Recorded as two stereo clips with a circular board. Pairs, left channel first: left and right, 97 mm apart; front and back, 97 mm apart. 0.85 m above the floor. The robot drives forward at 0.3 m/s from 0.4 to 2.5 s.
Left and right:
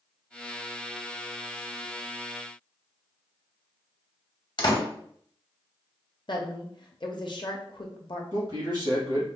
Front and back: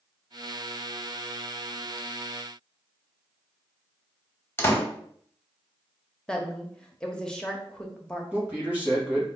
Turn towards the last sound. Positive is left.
turn(degrees=-105)